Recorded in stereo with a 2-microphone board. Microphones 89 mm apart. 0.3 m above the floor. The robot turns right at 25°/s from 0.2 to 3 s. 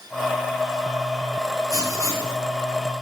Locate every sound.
1.7 s writing: 45° right (ahead or behind), 2.5 m; by 2.4 s 30° right (ahead or behind), 2.5 m